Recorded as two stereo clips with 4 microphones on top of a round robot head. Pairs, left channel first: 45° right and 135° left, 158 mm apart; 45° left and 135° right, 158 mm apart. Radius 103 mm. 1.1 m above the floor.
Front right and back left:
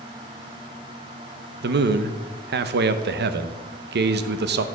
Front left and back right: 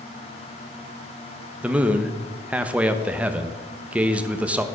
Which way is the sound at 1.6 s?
145° left.